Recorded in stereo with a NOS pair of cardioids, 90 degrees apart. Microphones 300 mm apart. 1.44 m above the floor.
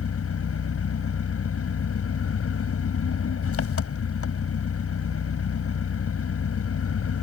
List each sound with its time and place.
0.0 s an engine running: 45° left